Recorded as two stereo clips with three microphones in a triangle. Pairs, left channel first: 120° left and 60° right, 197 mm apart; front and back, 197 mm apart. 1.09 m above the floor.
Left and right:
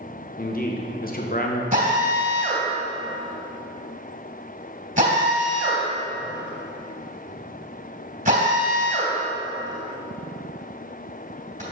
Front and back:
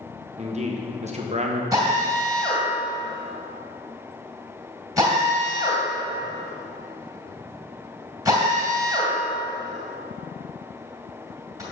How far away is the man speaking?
About 1.0 m.